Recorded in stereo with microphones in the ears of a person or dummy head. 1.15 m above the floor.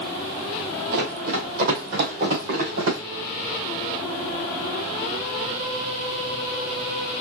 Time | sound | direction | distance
0.9 | running footsteps | 55° right (ahead or behind) | 2 m